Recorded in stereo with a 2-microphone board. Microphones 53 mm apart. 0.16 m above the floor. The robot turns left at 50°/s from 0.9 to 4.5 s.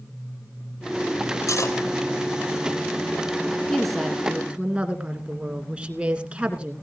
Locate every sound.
1.5 s cutlery clinking: 75° left (ahead or behind), 3 m
3.7 s a woman speaking: 10° left, 2.5 m; by 6.7 s 30° right, 2.5 m